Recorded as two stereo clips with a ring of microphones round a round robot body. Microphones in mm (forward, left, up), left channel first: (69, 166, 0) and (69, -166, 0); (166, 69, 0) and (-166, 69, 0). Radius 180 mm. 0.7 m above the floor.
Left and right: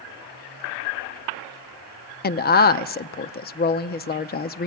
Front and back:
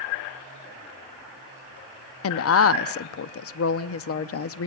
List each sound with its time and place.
2.2 s a woman speaking: 35° left, 0.8 m